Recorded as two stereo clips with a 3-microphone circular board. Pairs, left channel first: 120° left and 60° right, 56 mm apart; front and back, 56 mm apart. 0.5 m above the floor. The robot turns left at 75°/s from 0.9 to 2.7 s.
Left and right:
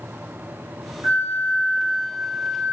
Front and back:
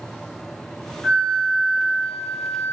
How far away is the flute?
About 1.0 m.